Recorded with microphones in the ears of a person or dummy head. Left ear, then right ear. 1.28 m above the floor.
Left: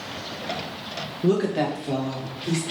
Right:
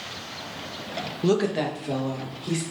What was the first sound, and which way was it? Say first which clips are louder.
A woman speaking: left 1 dB; 40° right (ahead or behind).